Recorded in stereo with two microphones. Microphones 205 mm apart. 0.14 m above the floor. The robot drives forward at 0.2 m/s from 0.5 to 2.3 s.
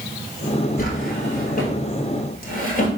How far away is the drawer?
About 1.2 m.